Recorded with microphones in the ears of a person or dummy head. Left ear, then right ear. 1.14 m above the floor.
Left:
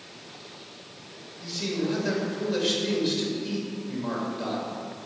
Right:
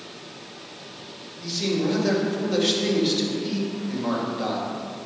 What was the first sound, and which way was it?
A man speaking, 10° right (ahead or behind).